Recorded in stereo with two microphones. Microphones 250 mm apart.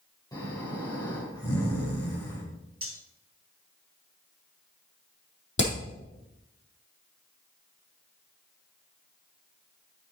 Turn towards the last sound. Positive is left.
turn(degrees=45)  # may be behind; listen again after turning